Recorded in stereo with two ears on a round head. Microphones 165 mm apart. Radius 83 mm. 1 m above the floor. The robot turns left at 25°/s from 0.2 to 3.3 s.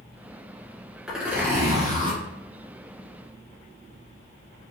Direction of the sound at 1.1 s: Centre (ahead or behind).